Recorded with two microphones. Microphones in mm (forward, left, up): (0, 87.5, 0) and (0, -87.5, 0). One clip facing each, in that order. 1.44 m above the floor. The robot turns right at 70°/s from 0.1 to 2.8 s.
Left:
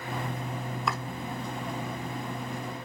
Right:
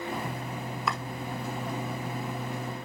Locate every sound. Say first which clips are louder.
0.9 s chopping: even; centre (ahead or behind), 1.5 m; by 1.0 s 10° left (ahead or behind), 1.5 m